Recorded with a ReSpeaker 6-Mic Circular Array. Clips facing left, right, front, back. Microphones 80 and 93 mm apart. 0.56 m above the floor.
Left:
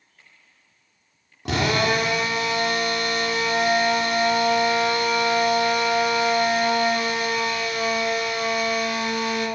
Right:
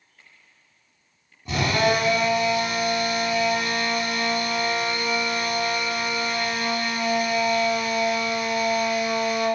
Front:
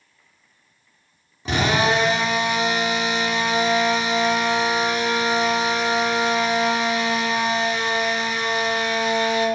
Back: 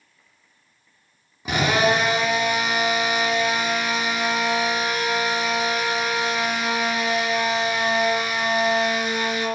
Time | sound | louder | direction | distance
1.4 | a drill | even, even | 100° left | 4 m